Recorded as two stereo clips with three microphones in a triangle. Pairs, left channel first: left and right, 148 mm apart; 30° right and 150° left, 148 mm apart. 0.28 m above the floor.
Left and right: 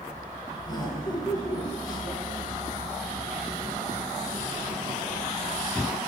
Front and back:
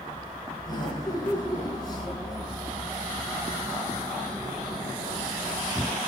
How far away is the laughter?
About 2.5 m.